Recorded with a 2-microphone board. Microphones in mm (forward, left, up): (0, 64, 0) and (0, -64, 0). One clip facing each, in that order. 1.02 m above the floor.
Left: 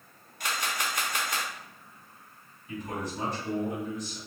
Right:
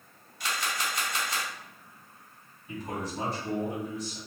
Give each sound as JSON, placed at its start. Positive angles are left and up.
{"t": 0.4, "sound": "a camera shutter", "side_deg": 50, "distance_m": 0.8}
{"t": 2.7, "sound": "a man speaking", "side_deg": -30, "distance_m": 1.5}